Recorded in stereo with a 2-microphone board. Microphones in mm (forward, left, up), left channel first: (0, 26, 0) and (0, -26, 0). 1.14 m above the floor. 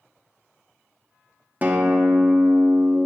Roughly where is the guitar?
Right.